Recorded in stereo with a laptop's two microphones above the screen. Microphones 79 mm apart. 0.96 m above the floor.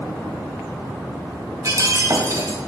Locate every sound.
1.6 s breaking glass: 45° right (ahead or behind), 2.5 m